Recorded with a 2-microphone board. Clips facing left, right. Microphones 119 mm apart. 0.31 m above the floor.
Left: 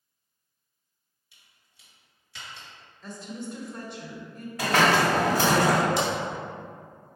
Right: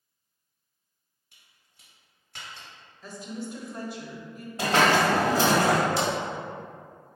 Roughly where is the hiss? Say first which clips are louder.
Even; right.